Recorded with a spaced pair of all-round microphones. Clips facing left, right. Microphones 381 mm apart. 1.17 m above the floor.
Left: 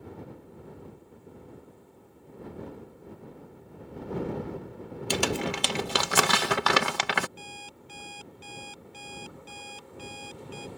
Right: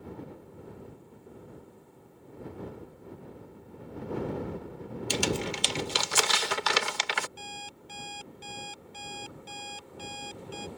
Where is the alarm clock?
55° right (ahead or behind).